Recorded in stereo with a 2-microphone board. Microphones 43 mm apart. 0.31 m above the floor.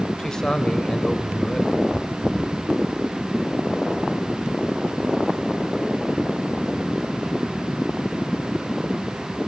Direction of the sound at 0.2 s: 15° left (ahead or behind).